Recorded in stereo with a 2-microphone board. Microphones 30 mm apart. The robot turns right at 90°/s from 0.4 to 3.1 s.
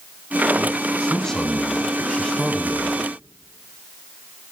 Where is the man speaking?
10° left (ahead or behind), 1.0 m; by 3.0 s 10° right (ahead or behind), 1.0 m.